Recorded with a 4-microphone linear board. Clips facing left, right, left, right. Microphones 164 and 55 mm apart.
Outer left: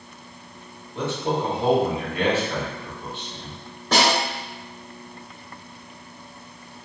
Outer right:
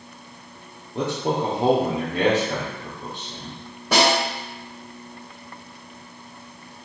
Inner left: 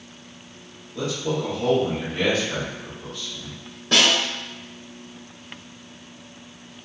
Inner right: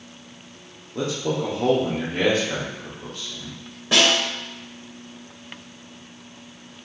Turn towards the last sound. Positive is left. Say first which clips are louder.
# outer right 2 dB, inner right 1 dB
turn(degrees=-10)  # may be behind; listen again after turning